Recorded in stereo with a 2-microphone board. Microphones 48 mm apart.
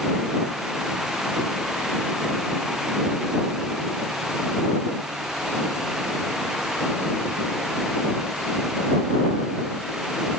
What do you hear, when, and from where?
Only background noise.